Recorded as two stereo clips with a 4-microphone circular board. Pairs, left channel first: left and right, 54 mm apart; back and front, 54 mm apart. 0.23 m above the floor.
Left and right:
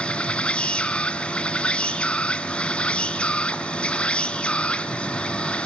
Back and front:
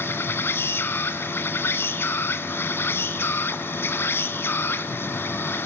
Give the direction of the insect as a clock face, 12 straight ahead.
7 o'clock.